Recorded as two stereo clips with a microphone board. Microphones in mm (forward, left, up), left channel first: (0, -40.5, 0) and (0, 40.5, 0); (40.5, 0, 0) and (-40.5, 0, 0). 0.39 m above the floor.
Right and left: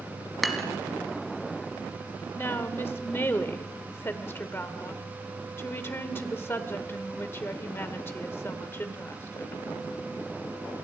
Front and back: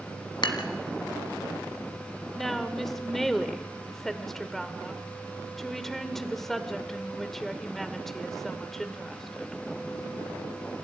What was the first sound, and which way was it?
Dishes clattering, straight ahead.